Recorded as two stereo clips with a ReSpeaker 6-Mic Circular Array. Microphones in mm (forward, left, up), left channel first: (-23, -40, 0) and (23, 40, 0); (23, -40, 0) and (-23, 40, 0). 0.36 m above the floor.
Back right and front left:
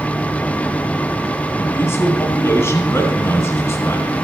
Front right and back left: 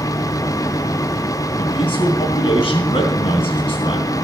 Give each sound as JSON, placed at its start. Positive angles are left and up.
{"t": 1.6, "sound": "a man speaking", "azimuth_deg": -60, "distance_m": 2.5}